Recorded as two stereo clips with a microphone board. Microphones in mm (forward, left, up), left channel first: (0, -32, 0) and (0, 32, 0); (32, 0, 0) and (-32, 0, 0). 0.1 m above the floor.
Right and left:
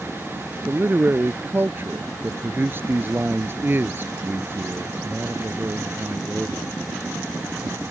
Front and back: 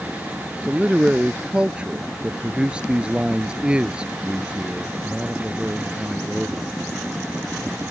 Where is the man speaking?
115° left.